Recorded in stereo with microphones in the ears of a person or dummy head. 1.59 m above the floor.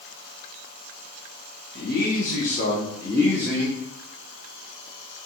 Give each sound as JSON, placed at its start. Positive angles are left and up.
{"t": 1.8, "sound": "a man speaking", "side_deg": 70, "distance_m": 1.0}